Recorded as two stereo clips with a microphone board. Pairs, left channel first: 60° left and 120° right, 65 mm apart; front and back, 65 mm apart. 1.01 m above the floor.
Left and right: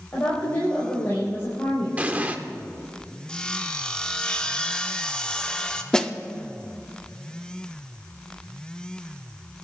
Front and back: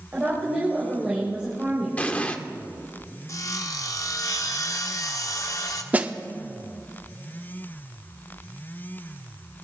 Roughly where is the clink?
No clink in this recording.